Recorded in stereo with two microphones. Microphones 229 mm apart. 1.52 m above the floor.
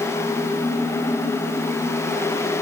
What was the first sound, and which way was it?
Only background noise.